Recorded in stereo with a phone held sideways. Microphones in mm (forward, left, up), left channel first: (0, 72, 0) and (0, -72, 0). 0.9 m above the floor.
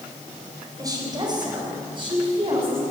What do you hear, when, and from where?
0.8 s a woman speaking: 25° right (ahead or behind), 3.5 m; by 2.8 s 40° right (ahead or behind), 6.5 m